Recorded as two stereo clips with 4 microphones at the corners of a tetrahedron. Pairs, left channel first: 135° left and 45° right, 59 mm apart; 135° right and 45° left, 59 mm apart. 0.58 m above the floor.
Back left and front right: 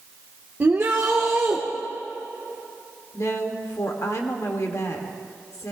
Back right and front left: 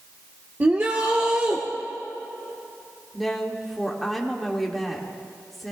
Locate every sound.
0.6 s a shout: 5° right, 1.1 m
3.1 s a woman speaking: 135° left, 1.5 m